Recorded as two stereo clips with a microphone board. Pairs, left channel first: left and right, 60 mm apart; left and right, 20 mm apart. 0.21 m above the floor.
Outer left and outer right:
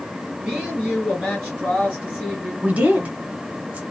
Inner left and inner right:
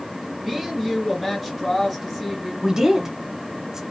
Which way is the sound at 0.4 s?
15° right (ahead or behind).